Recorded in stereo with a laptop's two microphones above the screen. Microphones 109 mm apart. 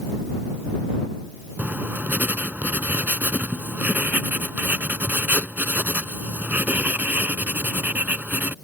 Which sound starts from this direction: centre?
Writing, at 1.6 s.